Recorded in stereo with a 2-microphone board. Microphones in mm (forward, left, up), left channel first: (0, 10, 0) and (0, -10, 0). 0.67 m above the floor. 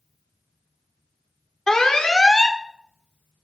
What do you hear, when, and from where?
1.7 s an alarm: 35° left (ahead or behind), 0.9 m